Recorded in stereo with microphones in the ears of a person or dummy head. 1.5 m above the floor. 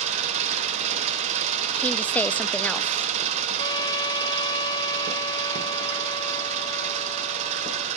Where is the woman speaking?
10° left (ahead or behind), 0.8 m.